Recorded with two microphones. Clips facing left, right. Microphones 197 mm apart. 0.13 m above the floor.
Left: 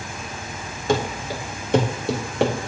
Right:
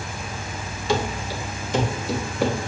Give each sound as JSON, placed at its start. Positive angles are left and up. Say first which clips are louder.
{"t": 0.9, "sound": "running footsteps", "louder": "left 2 dB", "side_deg": 50, "distance_m": 2.5}